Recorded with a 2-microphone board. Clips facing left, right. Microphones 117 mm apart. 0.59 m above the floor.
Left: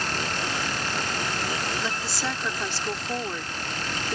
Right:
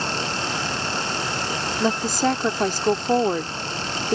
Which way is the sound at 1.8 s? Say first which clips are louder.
Right 9 dB; 50° right (ahead or behind).